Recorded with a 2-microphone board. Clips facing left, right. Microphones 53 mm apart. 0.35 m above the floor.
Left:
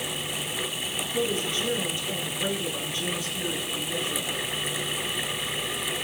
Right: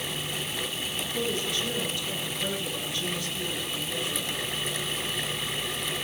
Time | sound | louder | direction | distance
1.1 | a woman speaking | left 3 dB | 25° left (ahead or behind) | 6 m